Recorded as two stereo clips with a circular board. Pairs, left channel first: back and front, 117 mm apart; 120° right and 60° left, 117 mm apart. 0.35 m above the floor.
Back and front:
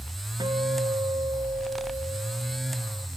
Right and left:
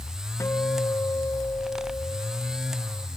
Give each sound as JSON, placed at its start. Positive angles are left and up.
{"t": 0.4, "sound": "a guitar", "azimuth_deg": -55}